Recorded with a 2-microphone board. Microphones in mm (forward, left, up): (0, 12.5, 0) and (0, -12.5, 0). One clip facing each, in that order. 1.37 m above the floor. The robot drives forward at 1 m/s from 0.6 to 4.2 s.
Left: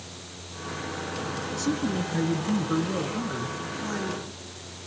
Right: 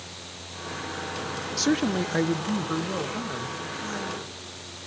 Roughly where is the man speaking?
Right.